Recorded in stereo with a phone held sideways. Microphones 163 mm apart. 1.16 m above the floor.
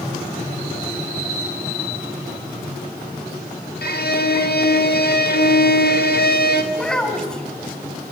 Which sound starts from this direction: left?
A violin, at 3.8 s.